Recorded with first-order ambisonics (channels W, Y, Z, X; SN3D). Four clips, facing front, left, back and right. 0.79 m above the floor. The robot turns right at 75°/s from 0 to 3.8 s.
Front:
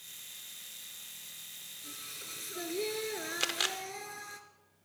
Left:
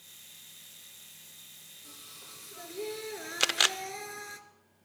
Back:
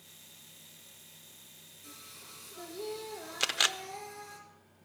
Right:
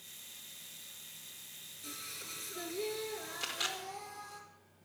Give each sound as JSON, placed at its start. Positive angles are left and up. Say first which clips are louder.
{"t": 1.8, "sound": "singing", "louder": "right 6 dB, front 5 dB", "azimuth_deg": -80, "distance_m": 1.8}
{"t": 3.4, "sound": "a camera shutter", "louder": "left 12 dB, back 5 dB", "azimuth_deg": 95, "distance_m": 0.5}